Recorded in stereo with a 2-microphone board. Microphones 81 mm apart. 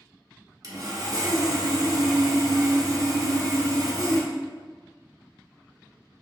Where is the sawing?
50° right (ahead or behind), 0.7 m.